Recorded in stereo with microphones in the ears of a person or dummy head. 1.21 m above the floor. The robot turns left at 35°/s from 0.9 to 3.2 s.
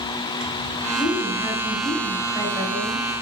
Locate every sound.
0.9 s a woman speaking: 35° left, 2 m; by 3.1 s 45° right, 2 m